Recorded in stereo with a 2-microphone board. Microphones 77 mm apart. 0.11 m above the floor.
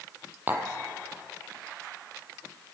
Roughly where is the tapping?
Right.